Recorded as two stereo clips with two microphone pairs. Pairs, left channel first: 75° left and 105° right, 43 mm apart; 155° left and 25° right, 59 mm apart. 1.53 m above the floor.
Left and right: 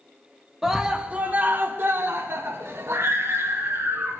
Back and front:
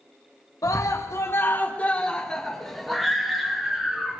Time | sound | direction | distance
0.6 | a scream | 170° left | 1.2 m